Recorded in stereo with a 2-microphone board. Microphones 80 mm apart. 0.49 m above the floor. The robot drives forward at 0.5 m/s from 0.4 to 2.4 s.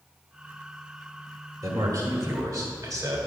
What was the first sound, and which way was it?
A man speaking, 50° right (ahead or behind).